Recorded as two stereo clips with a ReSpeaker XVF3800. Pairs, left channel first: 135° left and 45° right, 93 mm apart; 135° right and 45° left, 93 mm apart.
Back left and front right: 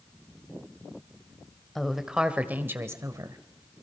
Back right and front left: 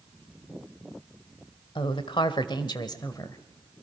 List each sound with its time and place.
1.8 s a woman speaking: 135° right, 1.6 m; by 3.4 s 85° right, 1.6 m